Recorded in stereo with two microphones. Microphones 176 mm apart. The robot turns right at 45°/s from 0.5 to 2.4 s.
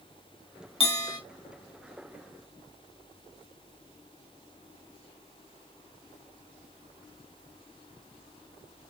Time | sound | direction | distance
0.8 | a bell | 35° left (ahead or behind) | 1.4 m